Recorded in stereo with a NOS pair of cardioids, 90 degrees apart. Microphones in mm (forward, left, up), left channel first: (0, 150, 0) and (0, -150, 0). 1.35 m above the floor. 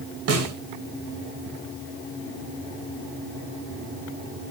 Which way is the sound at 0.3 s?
50° right.